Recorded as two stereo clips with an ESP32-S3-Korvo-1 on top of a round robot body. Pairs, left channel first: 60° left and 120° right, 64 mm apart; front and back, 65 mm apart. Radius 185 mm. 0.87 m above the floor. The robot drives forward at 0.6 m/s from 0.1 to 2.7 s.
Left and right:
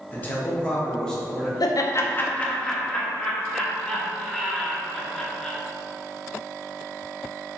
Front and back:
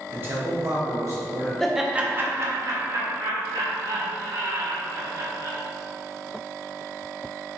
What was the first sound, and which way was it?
A man speaking, 120° left.